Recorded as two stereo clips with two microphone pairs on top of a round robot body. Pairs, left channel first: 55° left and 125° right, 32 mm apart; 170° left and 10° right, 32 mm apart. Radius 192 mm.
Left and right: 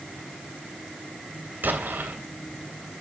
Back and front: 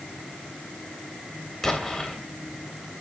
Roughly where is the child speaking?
I don't hear a child speaking.